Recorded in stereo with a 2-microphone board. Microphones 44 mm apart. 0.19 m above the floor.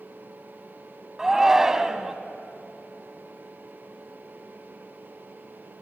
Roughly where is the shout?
Centre.